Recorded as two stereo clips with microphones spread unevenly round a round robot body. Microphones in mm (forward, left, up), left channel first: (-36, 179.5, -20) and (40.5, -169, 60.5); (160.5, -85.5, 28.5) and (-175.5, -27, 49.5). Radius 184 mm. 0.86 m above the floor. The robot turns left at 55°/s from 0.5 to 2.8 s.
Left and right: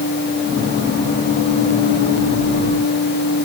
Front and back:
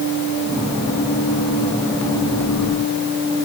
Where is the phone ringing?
No phone ringing in this recording.